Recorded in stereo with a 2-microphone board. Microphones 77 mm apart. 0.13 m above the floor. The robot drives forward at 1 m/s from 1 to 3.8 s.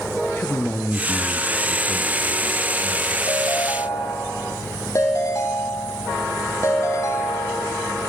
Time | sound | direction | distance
0.4 | a man speaking | 25° left (ahead or behind) | 2.5 m
3.3 | a ringtone | 45° left (ahead or behind) | 3.5 m